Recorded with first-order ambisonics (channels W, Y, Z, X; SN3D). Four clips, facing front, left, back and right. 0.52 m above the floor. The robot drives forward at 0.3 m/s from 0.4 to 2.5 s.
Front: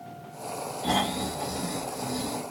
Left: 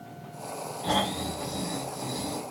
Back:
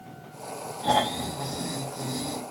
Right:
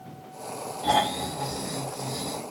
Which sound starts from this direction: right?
Snoring, at 0.8 s.